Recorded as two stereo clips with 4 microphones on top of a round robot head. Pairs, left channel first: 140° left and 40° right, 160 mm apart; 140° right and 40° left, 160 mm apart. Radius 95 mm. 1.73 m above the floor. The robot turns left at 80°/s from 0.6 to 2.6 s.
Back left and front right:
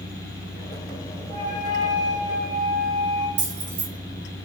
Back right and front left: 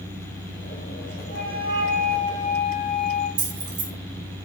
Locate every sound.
1.3 s a flute: 25° left, 3.5 m; by 3.3 s 80° right, 3.5 m
3.4 s keys jangling: 20° right, 5 m